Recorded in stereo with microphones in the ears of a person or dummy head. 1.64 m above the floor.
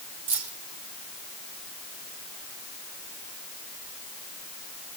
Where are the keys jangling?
70° right (ahead or behind), 2.5 m.